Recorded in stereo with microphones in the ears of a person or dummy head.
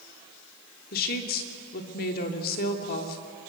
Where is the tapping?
I don't hear tapping.